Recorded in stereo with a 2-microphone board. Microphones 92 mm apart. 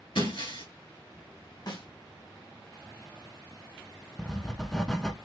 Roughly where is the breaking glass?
Left.